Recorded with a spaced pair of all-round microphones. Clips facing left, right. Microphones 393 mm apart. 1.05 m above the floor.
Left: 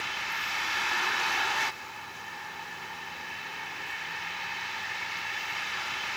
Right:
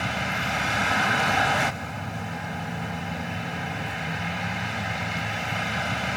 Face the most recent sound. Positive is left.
turn(degrees=-85)